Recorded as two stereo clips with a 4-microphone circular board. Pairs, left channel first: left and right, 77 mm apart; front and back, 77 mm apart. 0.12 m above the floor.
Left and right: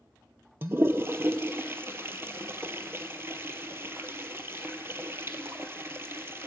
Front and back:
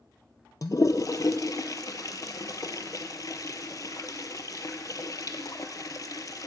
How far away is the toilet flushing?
About 0.5 m.